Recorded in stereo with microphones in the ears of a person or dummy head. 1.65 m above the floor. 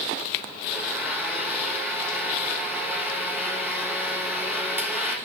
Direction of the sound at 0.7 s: 5° left (ahead or behind).